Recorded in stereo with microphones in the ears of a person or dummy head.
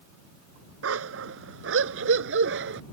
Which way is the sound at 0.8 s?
80° right.